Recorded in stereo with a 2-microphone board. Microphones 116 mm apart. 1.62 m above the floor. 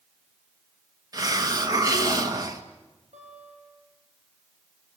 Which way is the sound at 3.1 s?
85° right.